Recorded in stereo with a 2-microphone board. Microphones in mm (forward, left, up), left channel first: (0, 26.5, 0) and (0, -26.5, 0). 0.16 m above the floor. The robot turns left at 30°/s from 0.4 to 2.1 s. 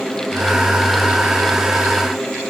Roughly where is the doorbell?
No doorbell in this recording.